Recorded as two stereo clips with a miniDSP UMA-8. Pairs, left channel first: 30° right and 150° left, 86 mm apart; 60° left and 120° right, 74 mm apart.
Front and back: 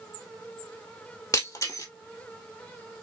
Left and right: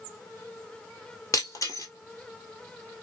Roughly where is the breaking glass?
Ahead.